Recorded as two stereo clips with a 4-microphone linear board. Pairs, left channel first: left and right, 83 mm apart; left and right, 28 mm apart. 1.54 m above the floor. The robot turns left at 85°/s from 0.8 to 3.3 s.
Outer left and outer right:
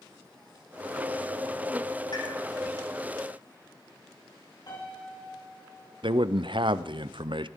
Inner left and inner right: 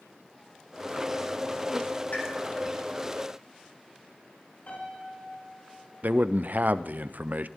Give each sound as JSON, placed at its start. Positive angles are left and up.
{"t": 2.1, "sound": "a pop", "side_deg": 60, "distance_m": 7.5}
{"t": 4.7, "sound": "a piano", "side_deg": 55, "distance_m": 6.5}
{"t": 6.0, "sound": "a man speaking", "side_deg": -70, "distance_m": 0.6}